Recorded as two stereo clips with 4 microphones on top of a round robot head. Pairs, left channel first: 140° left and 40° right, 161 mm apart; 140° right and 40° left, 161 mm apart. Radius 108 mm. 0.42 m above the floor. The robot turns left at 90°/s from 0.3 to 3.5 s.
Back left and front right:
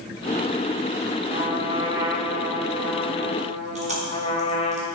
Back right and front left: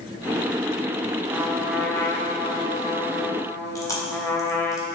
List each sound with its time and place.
1.3 s a trumpet: 5° right, 1.2 m; by 4.8 s 155° left, 1.2 m
3.8 s chewing: 75° right, 1.9 m